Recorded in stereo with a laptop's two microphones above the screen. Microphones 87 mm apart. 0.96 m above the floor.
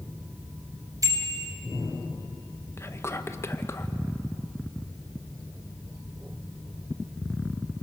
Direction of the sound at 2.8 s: 30° left (ahead or behind).